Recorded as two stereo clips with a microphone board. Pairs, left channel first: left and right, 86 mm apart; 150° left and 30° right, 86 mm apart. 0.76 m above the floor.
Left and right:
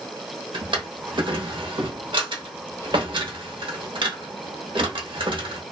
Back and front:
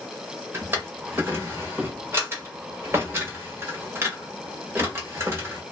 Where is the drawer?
90° right, 0.8 m.